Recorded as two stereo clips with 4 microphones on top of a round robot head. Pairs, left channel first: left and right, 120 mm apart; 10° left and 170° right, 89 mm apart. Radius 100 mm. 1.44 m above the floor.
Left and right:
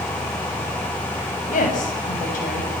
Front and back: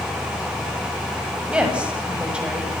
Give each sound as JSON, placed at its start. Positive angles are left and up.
{"t": 1.5, "sound": "a woman speaking", "azimuth_deg": 110, "distance_m": 8.0}